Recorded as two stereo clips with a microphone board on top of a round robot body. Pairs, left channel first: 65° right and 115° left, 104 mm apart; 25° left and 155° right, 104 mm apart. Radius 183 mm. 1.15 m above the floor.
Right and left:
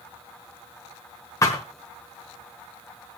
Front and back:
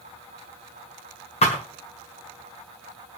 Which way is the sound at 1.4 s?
5° right.